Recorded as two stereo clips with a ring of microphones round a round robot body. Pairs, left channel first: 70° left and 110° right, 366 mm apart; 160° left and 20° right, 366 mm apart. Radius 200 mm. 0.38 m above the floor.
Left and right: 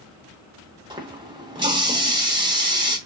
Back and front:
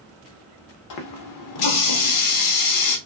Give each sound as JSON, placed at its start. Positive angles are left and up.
{"t": 0.9, "sound": "a running tap", "azimuth_deg": 170, "distance_m": 0.7}